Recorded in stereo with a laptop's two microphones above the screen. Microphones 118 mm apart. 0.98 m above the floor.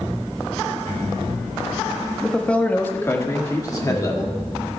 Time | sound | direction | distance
2.2 | a man speaking | 5° left (ahead or behind) | 1.3 m